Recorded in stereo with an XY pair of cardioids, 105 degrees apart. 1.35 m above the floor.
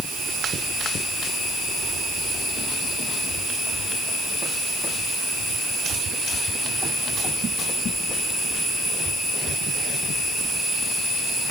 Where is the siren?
I don't hear a siren.